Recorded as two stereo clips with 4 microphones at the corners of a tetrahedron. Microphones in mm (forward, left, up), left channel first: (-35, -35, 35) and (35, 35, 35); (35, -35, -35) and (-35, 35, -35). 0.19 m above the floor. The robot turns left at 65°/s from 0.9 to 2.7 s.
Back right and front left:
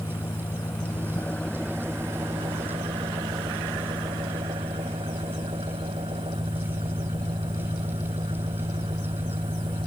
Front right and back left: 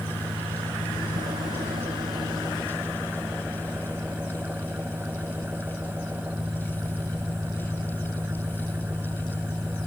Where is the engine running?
Straight behind; by 9.9 s 65° left.